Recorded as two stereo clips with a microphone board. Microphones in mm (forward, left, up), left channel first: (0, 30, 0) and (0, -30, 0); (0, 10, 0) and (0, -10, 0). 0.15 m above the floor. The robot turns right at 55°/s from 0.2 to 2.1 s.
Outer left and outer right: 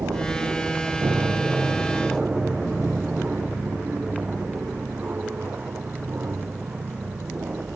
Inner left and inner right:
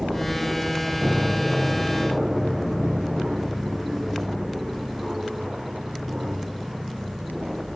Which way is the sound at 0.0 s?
70° right (ahead or behind).